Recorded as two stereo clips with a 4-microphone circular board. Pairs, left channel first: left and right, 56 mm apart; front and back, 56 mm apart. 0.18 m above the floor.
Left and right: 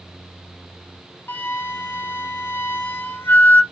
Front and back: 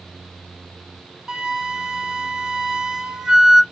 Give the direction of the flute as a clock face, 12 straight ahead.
9 o'clock.